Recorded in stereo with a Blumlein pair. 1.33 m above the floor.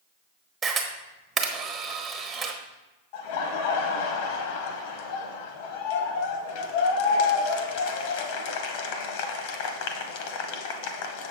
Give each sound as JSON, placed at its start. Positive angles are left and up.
{"t": 0.6, "sound": "a camera shutter", "azimuth_deg": -20, "distance_m": 1.0}
{"t": 3.1, "sound": "laughter", "azimuth_deg": 50, "distance_m": 0.9}